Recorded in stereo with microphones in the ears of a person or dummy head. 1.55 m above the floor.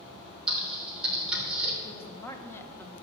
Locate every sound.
0.5 s typing on a keyboard: 5° right (ahead or behind), 3 m
1.8 s a woman speaking: 15° left (ahead or behind), 1.3 m